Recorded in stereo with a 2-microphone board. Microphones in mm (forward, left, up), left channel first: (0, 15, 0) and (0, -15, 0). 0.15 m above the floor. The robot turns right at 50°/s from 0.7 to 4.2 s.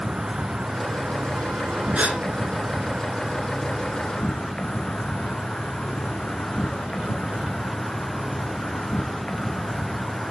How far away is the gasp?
About 1.3 m.